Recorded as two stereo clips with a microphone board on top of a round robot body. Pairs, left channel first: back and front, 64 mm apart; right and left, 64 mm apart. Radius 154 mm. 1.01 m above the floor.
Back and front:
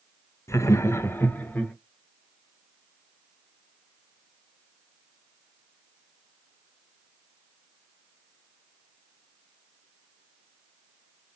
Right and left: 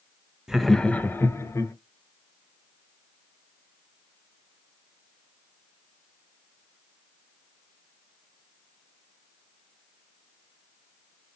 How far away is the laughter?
About 0.6 m.